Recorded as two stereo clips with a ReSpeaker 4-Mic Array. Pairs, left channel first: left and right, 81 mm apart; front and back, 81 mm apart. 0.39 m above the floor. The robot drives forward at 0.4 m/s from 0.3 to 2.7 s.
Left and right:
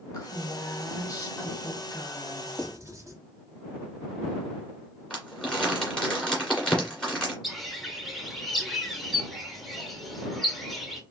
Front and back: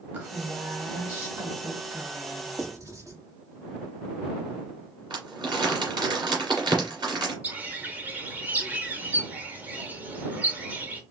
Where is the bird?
175° left, 0.8 m.